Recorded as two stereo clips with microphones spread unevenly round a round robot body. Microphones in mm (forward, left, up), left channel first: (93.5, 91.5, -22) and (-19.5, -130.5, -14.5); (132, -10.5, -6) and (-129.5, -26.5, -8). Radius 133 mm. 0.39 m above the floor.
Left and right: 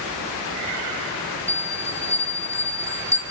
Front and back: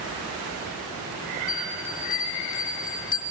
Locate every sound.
1.5 s a bell: 40° right, 3 m